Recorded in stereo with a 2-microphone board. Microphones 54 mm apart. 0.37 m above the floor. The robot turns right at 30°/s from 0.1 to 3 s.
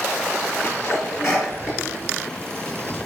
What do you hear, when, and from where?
0.6 s a sneeze: 65° left (ahead or behind), 5 m; by 2.9 s centre (ahead or behind), 5 m